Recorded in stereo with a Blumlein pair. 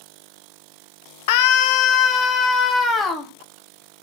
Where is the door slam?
I don't hear a door slam.